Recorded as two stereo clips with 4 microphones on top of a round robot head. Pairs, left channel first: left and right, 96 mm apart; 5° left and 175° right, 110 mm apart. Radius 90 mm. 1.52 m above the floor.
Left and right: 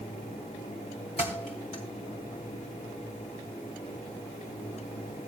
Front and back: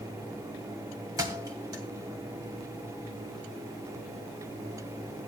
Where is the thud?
135° left, 2.0 m.